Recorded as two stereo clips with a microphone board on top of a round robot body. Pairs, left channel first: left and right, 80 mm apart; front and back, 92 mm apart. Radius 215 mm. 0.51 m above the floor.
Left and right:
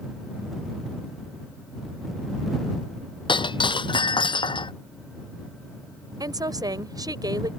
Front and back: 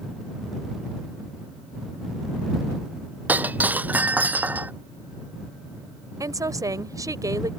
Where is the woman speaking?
130° right.